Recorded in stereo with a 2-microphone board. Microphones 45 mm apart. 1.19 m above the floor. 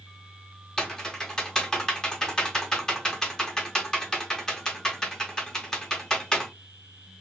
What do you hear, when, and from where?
0.8 s typing on a keyboard: 10° left (ahead or behind), 0.8 m